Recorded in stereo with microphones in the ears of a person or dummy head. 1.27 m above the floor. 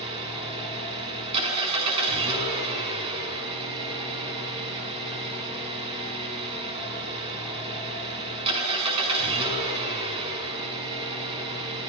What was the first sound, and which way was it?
An engine running, 30° right (ahead or behind).